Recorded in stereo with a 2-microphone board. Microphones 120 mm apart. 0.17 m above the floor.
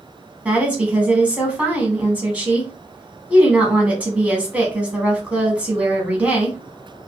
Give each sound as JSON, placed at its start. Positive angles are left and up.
{"t": 0.5, "sound": "a woman speaking", "side_deg": -10, "distance_m": 1.0}